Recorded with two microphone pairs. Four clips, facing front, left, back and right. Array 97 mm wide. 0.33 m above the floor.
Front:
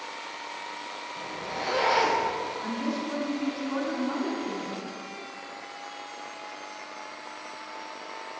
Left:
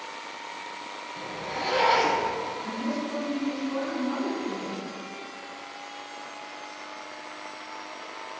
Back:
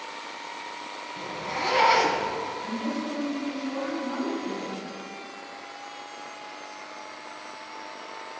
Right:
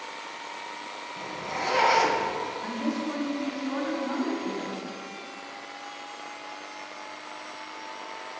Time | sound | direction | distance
1.2 | a zipper | 160° right | 1.4 m
2.6 | a woman speaking | 65° right | 2.5 m